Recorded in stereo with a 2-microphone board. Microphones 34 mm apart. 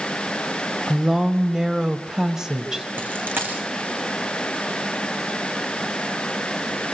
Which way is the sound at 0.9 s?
15° right (ahead or behind).